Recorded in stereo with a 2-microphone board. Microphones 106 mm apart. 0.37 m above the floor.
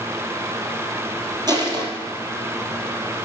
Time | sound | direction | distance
1.5 | crushing | 40° right (ahead or behind) | 2.5 m